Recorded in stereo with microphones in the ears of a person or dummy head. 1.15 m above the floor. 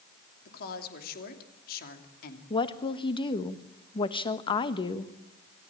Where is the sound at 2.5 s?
25° left (ahead or behind), 1.3 m.